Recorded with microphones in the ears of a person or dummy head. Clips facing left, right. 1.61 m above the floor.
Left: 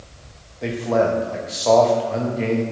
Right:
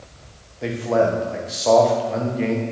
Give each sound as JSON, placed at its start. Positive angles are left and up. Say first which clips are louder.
{"t": 0.6, "sound": "a man speaking", "louder": "even", "side_deg": -5, "distance_m": 1.0}